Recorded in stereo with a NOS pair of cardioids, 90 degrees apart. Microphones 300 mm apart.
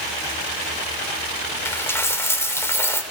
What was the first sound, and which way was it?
A dropped coin, 10° left.